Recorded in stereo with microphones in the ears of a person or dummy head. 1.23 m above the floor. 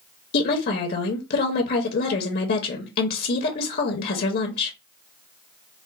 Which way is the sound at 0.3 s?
50° left (ahead or behind).